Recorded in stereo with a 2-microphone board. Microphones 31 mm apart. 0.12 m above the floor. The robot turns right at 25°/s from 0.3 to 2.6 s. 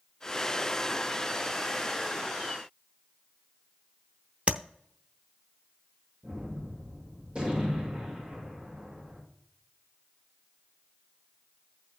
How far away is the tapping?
About 0.7 m.